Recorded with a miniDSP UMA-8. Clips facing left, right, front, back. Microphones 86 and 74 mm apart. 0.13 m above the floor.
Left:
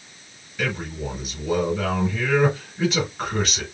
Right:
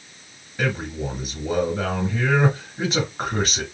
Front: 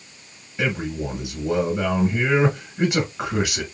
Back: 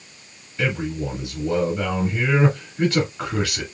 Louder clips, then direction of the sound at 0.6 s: Right 2 dB, even; 60° right.